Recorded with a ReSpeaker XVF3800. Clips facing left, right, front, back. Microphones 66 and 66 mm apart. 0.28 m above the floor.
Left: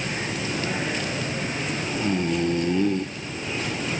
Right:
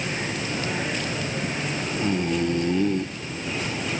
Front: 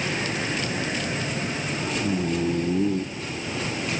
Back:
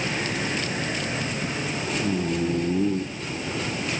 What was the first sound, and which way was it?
Only background noise.